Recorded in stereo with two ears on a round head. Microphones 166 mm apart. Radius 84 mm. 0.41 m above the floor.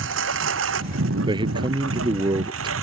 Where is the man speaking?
25° right (ahead or behind).